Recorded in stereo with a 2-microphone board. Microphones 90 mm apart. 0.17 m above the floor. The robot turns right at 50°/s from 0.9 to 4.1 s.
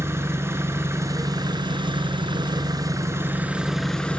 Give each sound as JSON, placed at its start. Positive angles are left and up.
{"t": 0.0, "sound": "an engine running", "azimuth_deg": -145, "distance_m": 0.8}